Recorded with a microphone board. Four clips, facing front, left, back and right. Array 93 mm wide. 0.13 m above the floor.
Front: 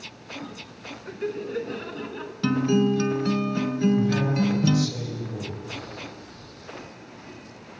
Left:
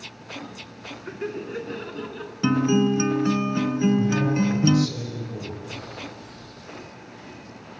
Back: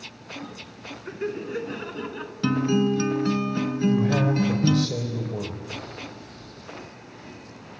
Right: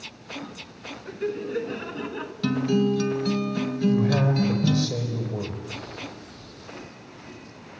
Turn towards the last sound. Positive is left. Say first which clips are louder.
# right 2 dB, back 2 dB
turn(degrees=-150)